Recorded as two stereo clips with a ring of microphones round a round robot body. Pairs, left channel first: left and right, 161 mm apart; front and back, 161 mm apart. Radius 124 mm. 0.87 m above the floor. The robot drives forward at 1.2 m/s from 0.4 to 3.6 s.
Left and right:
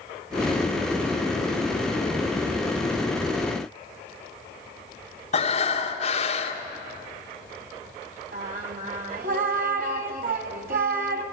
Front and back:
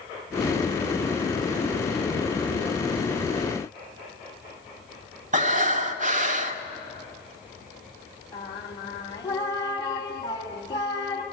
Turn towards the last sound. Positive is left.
turn(degrees=-70)